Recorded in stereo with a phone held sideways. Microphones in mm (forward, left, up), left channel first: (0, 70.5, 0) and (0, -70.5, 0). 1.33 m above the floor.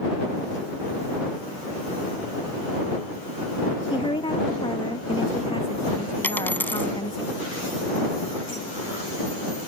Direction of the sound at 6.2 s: 15° left (ahead or behind).